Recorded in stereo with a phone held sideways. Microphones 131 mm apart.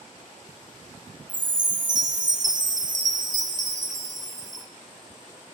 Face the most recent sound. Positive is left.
turn(degrees=-70)  # may be behind; listen again after turning